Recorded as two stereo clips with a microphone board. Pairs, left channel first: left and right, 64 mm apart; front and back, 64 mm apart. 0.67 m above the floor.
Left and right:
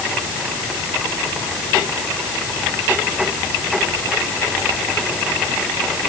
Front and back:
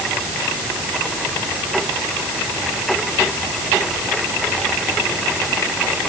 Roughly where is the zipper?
No zipper in this recording.